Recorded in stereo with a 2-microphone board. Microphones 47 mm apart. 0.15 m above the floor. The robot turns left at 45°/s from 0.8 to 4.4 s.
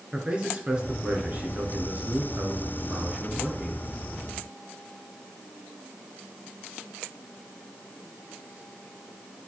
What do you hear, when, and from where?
0.1 s a man speaking: 30° right, 2.5 m; by 3.9 s 170° right, 2.5 m